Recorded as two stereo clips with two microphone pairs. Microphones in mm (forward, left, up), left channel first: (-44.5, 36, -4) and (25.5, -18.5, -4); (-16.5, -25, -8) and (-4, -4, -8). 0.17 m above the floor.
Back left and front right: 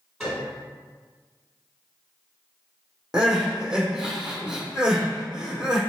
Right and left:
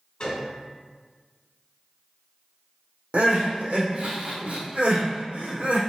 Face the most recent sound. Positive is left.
turn(degrees=45)